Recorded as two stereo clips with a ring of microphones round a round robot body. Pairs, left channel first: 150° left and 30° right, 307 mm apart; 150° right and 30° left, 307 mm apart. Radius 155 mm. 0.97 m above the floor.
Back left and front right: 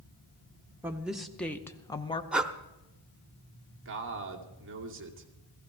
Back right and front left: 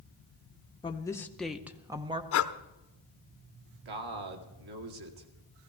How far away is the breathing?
About 0.6 m.